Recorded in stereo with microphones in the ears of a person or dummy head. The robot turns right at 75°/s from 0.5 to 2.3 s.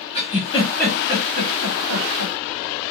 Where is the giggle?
30° left (ahead or behind), 1.1 m; by 2.3 s 65° right (ahead or behind), 1.1 m.